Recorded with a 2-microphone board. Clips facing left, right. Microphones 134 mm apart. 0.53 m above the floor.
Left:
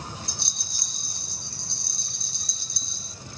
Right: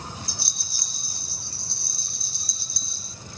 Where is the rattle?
5° right (ahead or behind), 0.6 m.